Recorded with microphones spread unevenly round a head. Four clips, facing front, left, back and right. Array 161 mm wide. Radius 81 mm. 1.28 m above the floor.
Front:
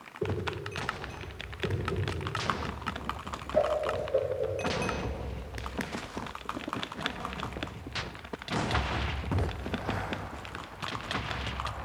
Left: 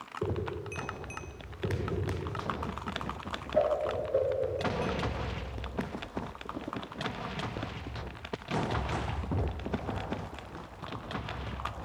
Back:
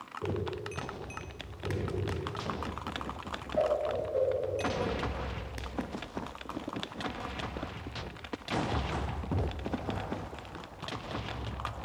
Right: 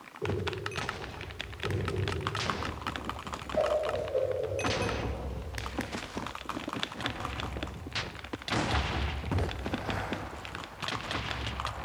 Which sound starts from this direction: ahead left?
A whoosh, at 0.2 s.